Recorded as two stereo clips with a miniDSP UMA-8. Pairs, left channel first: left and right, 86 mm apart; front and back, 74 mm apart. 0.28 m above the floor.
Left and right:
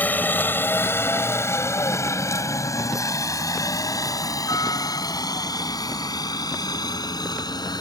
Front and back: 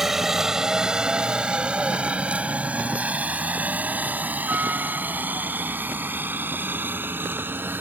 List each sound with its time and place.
0.0 s a helicopter: 105° left; by 7.8 s 120° left